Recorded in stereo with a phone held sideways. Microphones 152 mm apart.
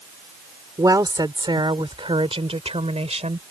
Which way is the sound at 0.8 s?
25° right (ahead or behind).